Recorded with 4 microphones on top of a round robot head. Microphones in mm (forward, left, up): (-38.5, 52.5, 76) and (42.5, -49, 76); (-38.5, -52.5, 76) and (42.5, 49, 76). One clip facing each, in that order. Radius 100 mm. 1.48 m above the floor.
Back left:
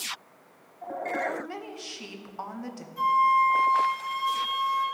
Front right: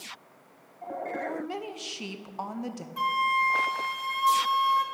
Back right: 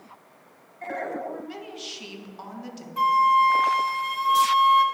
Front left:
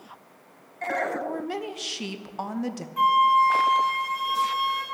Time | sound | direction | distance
1.2 | a woman speaking | 15° left | 0.7 m
3.0 | a flute | 75° right | 1.3 m